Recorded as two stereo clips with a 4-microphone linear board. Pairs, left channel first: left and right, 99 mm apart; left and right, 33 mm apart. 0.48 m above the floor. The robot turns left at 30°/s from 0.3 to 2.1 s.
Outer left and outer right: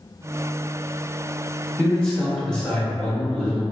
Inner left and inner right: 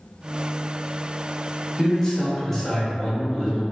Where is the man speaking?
15° left (ahead or behind), 1.0 m; by 3.6 s 10° left (ahead or behind), 1.0 m.